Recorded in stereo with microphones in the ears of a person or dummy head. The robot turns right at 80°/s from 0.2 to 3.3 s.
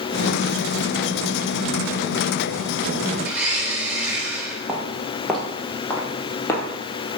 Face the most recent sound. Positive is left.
turn(degrees=15)  # may be behind; listen again after turning